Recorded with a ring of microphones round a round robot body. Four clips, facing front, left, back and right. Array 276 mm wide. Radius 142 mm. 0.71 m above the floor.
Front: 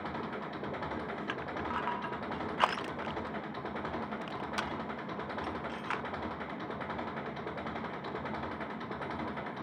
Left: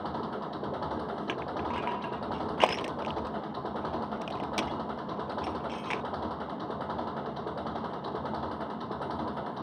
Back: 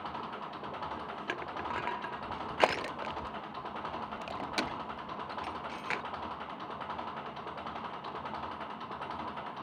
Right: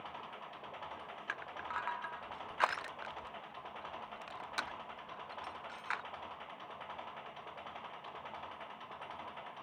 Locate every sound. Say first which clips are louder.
0.0 s an engine running: left 13 dB, front 1 dB; 70° left
1.3 s crushing: left 6 dB, back 1 dB; 130° left